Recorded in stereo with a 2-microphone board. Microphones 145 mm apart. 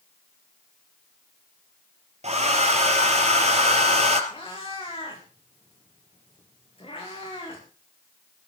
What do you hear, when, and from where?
2.2 s a hair dryer: 55° right (ahead or behind), 2.5 m
4.3 s a cat meowing: 40° left (ahead or behind), 5 m